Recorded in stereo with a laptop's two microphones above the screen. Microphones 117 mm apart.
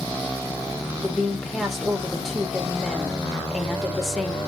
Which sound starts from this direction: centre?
A woman speaking, at 1.0 s.